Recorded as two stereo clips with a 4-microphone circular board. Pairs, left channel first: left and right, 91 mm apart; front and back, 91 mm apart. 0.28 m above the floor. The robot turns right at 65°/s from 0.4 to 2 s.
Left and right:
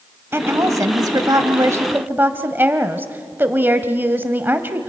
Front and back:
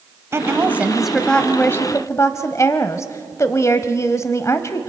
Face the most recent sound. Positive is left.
turn(degrees=-35)